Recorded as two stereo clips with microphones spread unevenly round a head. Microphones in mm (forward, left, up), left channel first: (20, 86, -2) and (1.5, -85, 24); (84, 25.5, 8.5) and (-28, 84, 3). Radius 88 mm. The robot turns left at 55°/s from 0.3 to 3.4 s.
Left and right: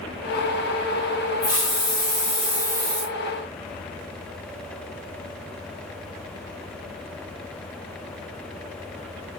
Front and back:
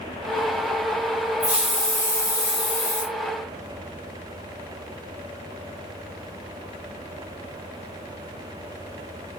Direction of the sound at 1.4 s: 75° left.